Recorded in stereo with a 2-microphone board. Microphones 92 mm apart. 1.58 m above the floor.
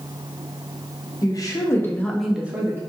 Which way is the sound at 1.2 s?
45° left (ahead or behind).